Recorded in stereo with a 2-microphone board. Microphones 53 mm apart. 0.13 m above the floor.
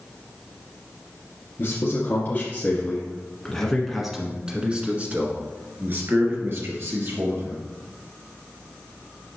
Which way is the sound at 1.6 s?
50° left (ahead or behind).